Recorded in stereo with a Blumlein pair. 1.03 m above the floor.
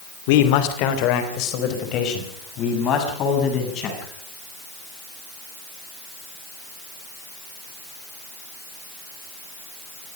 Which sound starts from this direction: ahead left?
A man speaking, at 0.3 s.